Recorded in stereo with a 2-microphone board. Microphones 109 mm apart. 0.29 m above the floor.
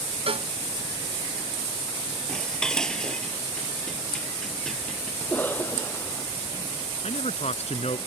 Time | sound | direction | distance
0.3 | a cowbell | 60° right (ahead or behind) | ?
2.3 | dishes clattering | 5° left (ahead or behind) | ?
5.2 | a cough | 15° left (ahead or behind) | ?
7.0 | a man speaking | 70° left (ahead or behind) | ?